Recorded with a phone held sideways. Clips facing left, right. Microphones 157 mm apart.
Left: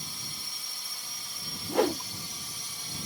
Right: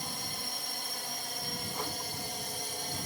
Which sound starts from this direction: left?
A whoosh, at 1.7 s.